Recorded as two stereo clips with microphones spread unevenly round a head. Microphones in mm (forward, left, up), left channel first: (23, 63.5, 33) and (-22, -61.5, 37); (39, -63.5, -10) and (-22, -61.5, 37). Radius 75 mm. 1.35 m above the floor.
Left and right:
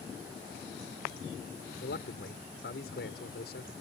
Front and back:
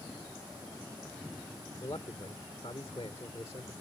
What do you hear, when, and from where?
1.8 s a man speaking: 60° left